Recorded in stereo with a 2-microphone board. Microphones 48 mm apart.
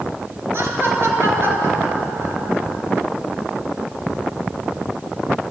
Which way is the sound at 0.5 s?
50° right (ahead or behind).